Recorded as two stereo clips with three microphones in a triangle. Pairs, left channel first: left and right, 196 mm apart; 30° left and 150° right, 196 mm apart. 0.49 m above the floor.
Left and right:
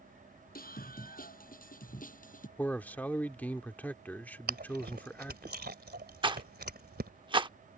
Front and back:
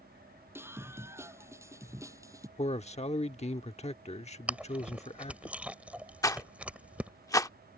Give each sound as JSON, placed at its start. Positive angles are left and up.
{"t": 0.6, "sound": "a scream", "azimuth_deg": 130}
{"t": 2.6, "sound": "a man speaking", "azimuth_deg": 15}
{"t": 4.5, "sound": "chewing", "azimuth_deg": -70}
{"t": 6.2, "sound": "a rattle", "azimuth_deg": -40}